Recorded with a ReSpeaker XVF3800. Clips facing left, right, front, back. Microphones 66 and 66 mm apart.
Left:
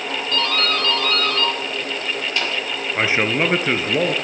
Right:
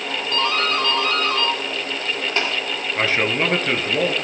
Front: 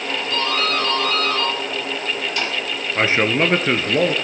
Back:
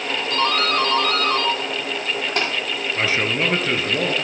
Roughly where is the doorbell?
Behind right.